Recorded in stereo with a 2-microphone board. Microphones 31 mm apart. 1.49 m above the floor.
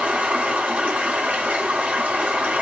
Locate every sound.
0.0 s running water: 50° right (ahead or behind), 2.5 m